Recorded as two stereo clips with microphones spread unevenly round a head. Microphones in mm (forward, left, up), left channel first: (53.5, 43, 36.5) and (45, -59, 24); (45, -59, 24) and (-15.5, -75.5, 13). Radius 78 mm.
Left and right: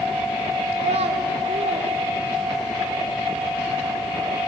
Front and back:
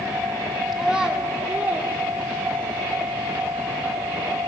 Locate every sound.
0.7 s a child speaking: 80° right, 3 m; by 2.8 s 120° right, 3 m